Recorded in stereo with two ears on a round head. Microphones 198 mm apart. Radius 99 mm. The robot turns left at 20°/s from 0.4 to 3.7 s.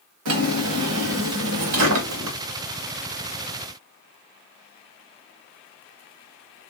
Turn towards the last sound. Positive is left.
turn(degrees=-145)